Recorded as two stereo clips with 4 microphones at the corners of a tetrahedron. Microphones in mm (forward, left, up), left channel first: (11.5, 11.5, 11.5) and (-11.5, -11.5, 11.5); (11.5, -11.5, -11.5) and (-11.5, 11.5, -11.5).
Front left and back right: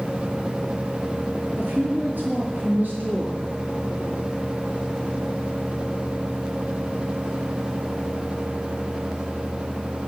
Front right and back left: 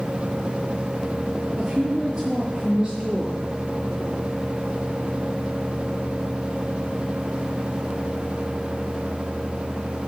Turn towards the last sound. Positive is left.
turn(degrees=-145)